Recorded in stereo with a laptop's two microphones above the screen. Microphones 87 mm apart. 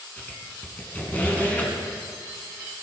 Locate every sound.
0.2 s a squeak: 20° left (ahead or behind), 4 m